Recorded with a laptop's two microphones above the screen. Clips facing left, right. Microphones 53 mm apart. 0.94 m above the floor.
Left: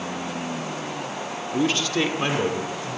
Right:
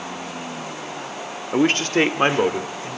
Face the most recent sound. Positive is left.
turn(degrees=-35)  # may be behind; listen again after turning